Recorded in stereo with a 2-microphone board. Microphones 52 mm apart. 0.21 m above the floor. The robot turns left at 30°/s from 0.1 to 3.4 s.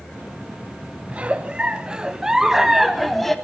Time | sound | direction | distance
1.1 | a giggle | 120° right | 0.8 m